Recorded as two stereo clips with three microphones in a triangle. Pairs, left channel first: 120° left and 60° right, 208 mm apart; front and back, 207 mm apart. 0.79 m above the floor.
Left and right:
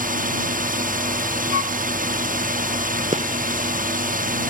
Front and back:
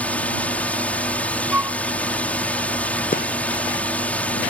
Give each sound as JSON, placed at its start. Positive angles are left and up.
{"t": 0.0, "sound": "a drone", "azimuth_deg": -80}
{"t": 1.5, "sound": "a flute", "azimuth_deg": 100}
{"t": 3.1, "sound": "a gunshot", "azimuth_deg": -20}